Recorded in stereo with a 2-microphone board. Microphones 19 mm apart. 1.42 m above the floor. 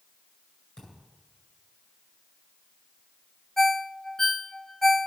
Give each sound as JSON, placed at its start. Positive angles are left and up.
{"t": 0.8, "sound": "a thud", "side_deg": 45, "distance_m": 10.0}
{"t": 3.6, "sound": "a ringtone", "side_deg": 20, "distance_m": 0.8}